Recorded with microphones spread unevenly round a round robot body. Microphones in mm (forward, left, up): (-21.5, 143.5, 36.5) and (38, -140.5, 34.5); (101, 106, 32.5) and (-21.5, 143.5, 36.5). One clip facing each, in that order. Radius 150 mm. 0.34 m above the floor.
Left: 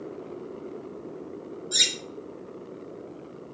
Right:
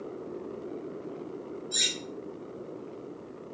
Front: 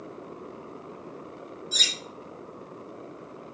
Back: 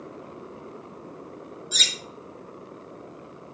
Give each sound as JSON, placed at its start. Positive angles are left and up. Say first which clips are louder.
{"t": 1.7, "sound": "cutlery clinking", "louder": "left 2 dB, back 1 dB", "azimuth_deg": 160, "distance_m": 1.2}